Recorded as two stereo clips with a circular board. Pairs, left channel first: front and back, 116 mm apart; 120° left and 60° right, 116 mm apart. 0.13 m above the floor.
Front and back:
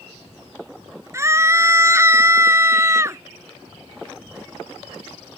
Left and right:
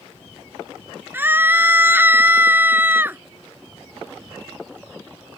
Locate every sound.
1.1 s a scream: 125° right